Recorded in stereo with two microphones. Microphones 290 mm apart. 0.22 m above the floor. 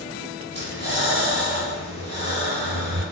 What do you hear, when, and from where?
0.5 s breathing: 40° right (ahead or behind), 0.9 m